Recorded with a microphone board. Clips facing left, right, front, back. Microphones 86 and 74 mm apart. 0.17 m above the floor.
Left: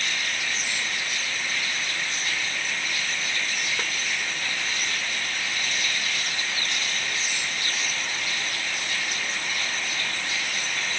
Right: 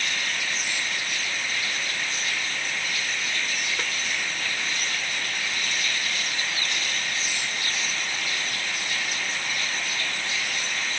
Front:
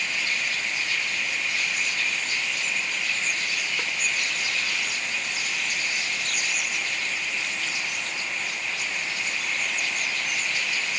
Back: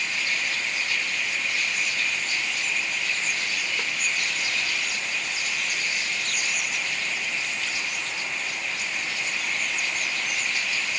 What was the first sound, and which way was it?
Only background noise.